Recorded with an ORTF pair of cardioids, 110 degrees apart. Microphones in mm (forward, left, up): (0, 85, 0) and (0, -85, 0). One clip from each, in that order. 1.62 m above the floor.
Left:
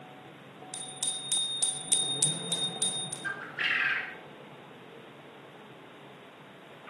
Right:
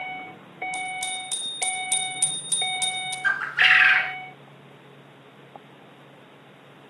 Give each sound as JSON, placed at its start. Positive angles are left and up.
{"t": 0.7, "sound": "a bicycle bell", "azimuth_deg": -5, "distance_m": 4.5}
{"t": 3.2, "sound": "a bird", "azimuth_deg": -55, "distance_m": 0.6}